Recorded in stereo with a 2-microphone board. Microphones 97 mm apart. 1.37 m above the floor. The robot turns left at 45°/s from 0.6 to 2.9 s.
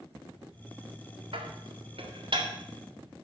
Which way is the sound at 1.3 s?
70° right (ahead or behind).